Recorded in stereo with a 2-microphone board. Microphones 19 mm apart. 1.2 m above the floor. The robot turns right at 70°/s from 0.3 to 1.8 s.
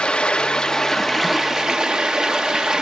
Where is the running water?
120° left, 1.4 m; by 2.8 s 135° right, 1.4 m.